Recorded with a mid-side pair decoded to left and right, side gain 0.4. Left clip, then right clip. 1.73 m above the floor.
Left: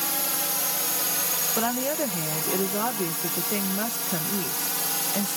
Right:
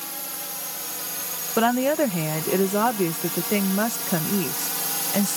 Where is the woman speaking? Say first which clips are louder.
Right 9 dB; 50° right.